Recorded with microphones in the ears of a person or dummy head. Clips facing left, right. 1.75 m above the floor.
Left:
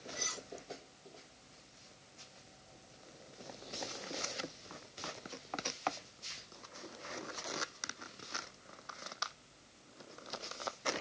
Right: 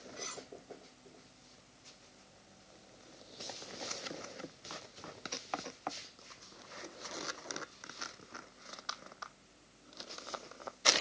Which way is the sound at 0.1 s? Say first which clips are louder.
Even; 30° left (ahead or behind).